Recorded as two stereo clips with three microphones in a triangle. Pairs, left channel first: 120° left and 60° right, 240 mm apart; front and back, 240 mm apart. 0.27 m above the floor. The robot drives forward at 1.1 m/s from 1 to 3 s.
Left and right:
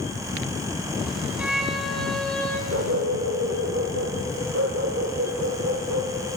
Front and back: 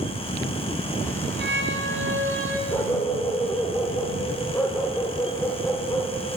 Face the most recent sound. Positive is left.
turn(degrees=-80)